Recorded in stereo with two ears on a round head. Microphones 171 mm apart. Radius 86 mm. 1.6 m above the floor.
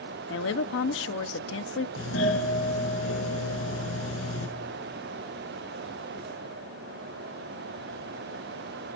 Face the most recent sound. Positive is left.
turn(degrees=75)  # may be behind; listen again after turning